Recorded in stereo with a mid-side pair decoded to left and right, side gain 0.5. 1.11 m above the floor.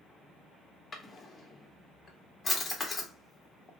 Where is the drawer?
30° left, 1.1 m.